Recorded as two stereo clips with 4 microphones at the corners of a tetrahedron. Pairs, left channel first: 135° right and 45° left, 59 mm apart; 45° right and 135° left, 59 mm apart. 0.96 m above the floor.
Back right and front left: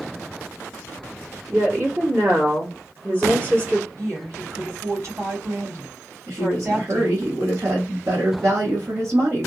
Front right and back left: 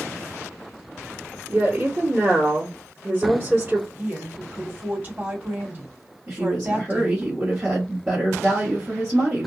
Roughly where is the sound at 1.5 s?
Left.